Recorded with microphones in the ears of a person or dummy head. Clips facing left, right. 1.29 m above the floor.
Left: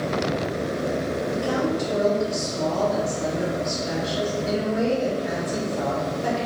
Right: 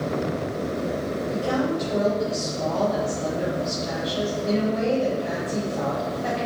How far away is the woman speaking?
About 2.0 m.